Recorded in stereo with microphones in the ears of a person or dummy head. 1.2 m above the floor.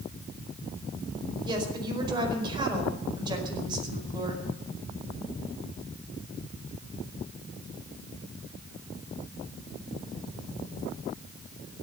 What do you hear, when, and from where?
1.4 s a woman speaking: 30° right (ahead or behind), 4.5 m